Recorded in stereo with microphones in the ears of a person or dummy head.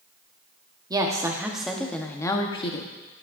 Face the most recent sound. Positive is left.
turn(degrees=40)  # may be behind; listen again after turning